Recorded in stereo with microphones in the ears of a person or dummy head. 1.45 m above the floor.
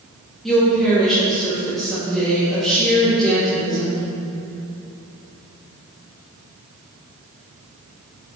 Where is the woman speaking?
5° left (ahead or behind), 2 m.